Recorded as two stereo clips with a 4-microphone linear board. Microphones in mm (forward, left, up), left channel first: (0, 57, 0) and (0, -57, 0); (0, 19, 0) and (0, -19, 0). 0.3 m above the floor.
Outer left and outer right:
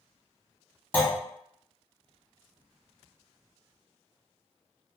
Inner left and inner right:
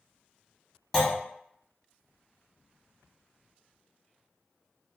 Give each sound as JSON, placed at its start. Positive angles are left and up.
{"t": 0.9, "sound": "a clunk", "side_deg": 15, "distance_m": 1.0}